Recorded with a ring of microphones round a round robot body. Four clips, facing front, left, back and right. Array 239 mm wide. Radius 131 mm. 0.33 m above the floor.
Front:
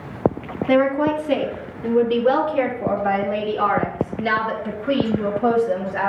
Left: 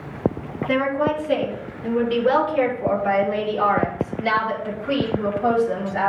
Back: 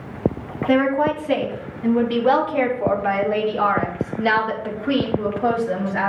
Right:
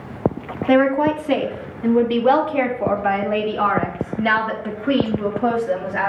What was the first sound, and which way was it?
A woman speaking, 105° right.